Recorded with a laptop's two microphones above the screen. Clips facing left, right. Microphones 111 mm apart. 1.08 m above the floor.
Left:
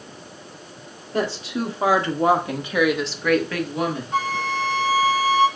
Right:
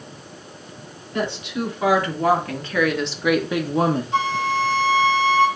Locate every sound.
1.1 s a woman speaking: 35° left (ahead or behind), 1.7 m; by 4.0 s 40° right (ahead or behind), 0.8 m
4.1 s a flute: 45° left (ahead or behind), 2 m